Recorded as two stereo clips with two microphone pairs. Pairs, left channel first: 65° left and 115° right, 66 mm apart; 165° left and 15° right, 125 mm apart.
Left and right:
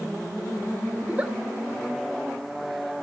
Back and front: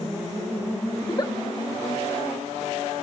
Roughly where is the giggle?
Behind.